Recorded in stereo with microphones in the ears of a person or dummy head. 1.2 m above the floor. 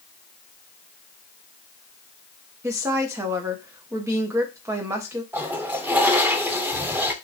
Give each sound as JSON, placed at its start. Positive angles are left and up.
{"t": 2.6, "sound": "a woman speaking", "side_deg": -15, "distance_m": 0.7}
{"t": 5.3, "sound": "a toilet flushing", "side_deg": -15, "distance_m": 0.5}